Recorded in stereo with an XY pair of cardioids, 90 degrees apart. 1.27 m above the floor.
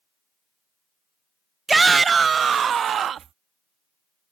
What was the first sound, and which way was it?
A shout, 20° right.